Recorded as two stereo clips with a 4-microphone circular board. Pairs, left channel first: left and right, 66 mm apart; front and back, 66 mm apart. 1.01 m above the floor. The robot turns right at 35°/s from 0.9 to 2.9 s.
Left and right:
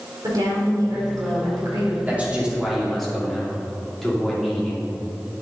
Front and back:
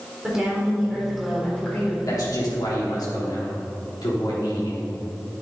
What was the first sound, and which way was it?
A woman speaking, 100° right.